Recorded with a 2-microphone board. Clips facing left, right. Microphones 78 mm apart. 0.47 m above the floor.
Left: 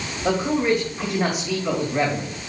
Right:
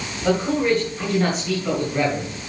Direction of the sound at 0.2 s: 15° left (ahead or behind).